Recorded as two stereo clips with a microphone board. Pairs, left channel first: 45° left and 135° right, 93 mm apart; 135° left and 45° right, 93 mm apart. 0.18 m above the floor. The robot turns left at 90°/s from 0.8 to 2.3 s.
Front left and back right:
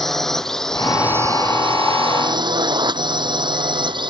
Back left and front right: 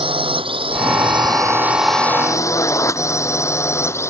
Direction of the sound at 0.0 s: 45° right.